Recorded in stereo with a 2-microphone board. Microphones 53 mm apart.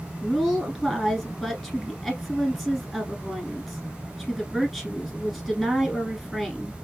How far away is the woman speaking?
About 1.3 m.